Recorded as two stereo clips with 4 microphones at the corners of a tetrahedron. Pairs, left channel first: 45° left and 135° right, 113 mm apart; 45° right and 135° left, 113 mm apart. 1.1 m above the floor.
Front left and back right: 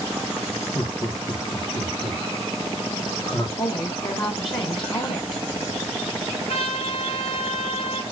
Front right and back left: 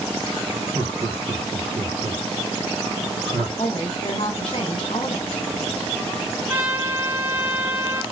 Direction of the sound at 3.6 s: Straight ahead.